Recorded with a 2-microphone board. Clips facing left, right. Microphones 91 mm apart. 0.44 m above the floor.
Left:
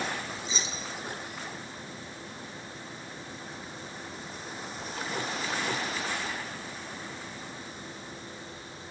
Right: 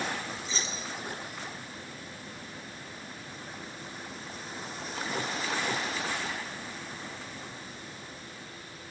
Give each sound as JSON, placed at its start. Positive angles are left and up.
{"t": 0.5, "sound": "keys jangling", "side_deg": 15, "distance_m": 2.5}